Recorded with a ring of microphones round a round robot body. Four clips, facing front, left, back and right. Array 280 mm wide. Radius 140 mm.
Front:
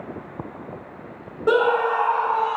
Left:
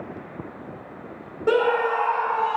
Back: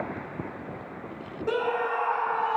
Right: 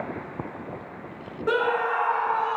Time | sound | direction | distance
1.5 | a scream | 30° left | 1.5 m